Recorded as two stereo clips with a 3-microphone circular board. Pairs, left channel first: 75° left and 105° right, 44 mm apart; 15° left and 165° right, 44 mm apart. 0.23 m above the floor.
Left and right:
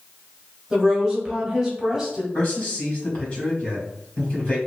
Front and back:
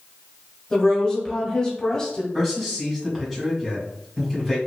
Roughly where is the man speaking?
Behind left.